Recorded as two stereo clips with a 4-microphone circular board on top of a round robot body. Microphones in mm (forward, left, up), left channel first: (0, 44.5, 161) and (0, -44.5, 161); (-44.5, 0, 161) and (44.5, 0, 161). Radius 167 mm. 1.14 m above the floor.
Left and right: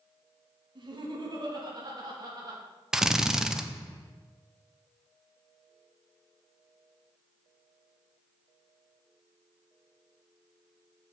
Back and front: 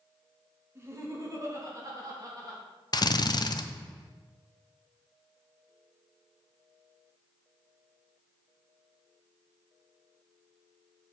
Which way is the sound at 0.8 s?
60° right.